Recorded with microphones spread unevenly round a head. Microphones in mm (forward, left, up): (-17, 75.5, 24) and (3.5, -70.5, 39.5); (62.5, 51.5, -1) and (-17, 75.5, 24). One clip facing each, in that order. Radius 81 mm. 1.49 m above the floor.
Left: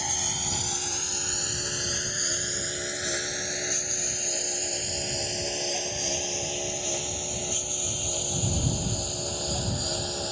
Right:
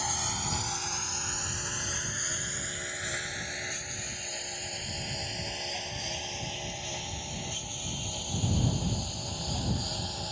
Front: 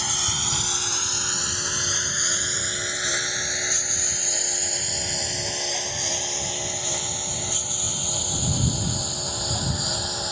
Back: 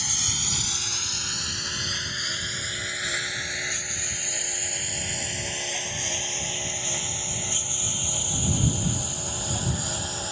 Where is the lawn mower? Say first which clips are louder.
Even, front 5 dB; 30° left; by 10.3 s 60° left.